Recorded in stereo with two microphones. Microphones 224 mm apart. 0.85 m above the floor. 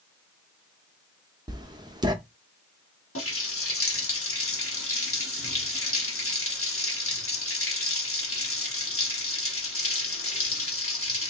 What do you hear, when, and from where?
1.5 s writing: 20° right (ahead or behind), 0.8 m
3.1 s a running tap: 75° left (ahead or behind), 1.0 m